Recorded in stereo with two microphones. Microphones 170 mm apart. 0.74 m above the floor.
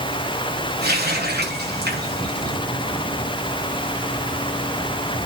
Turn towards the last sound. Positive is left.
turn(degrees=-85)